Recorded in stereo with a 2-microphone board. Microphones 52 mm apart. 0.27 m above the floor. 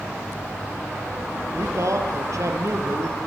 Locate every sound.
1.5 s a man speaking: 75° right (ahead or behind), 5.5 m